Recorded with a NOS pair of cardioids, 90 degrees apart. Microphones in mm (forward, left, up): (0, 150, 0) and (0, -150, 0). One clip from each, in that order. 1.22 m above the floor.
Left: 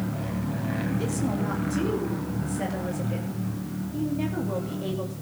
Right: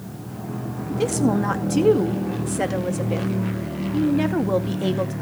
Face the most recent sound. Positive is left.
turn(degrees=-70)